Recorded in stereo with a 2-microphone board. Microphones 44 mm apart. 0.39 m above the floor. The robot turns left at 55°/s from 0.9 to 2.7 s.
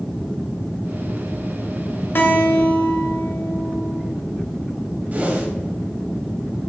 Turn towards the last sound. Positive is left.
turn(degrees=-40)  # may be behind; listen again after turning